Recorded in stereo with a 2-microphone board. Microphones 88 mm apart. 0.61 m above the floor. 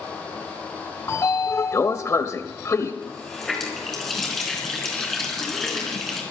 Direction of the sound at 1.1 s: 35° left (ahead or behind).